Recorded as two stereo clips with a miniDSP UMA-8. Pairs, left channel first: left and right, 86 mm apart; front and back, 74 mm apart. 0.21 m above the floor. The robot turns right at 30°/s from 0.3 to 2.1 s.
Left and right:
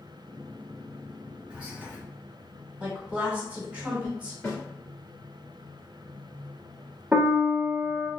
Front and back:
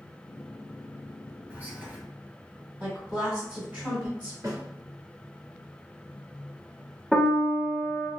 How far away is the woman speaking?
About 1.3 m.